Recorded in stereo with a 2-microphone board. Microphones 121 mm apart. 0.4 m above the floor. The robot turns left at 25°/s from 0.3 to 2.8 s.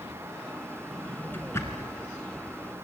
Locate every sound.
0.9 s a drawer: 5° left (ahead or behind), 3.5 m; by 1.9 s 30° left (ahead or behind), 3.5 m